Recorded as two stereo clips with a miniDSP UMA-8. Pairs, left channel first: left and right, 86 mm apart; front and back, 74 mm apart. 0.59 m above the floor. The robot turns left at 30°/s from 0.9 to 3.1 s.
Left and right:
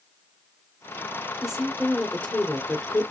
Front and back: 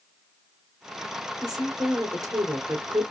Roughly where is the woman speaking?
Behind.